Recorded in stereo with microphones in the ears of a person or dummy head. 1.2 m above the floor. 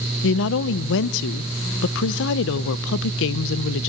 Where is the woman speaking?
70° left (ahead or behind), 0.5 m.